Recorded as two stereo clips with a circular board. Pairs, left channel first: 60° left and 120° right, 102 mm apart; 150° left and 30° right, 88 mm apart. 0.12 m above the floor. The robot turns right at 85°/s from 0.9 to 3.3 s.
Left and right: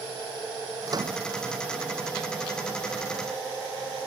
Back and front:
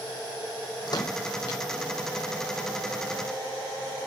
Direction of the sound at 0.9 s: 175° right.